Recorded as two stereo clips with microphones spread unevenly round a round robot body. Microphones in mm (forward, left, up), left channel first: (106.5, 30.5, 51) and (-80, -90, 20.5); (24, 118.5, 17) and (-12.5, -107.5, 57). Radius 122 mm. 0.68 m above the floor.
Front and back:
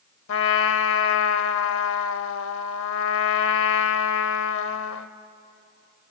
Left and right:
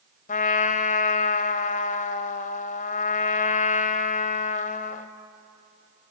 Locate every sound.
0.3 s a trumpet: 20° left, 0.7 m